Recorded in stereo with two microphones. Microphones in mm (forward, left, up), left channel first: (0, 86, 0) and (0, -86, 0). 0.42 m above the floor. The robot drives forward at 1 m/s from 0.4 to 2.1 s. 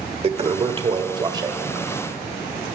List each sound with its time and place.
0.2 s a toilet flushing: 35° right (ahead or behind), 1.2 m; by 2.8 s 20° right (ahead or behind), 2.5 m